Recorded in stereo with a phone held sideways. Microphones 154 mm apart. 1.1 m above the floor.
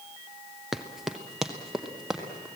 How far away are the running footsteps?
About 1.2 m.